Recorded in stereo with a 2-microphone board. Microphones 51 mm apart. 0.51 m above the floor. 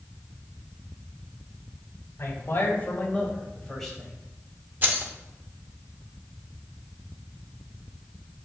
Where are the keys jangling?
40° right (ahead or behind), 0.8 m.